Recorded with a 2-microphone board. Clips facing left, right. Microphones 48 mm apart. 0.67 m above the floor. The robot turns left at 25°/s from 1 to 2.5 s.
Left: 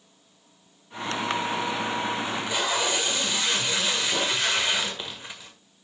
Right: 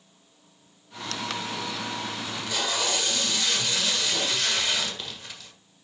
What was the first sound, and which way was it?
Tape being pulled, 30° left (ahead or behind).